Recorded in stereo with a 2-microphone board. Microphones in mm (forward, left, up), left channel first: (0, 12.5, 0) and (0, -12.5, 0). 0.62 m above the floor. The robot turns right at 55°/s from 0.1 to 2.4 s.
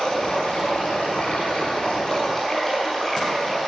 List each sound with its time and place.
0.0 s running water: 40° left, 5.5 m; by 3.7 s 165° left, 5.5 m